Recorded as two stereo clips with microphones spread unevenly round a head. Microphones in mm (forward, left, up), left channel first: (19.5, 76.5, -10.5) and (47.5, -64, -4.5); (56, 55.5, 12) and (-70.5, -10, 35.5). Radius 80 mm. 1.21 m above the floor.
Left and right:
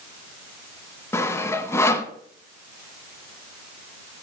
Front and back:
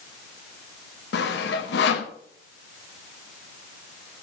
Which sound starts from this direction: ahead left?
Sawing, at 1.1 s.